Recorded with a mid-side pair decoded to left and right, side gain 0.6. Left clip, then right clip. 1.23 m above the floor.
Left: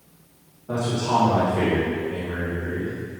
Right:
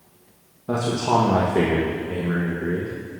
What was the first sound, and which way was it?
A man speaking, 50° right.